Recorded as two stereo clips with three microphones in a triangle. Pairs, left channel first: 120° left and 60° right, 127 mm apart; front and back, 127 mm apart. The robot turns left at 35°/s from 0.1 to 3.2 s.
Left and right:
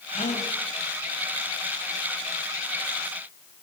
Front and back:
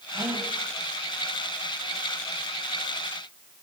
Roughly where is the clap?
I don't hear a clap.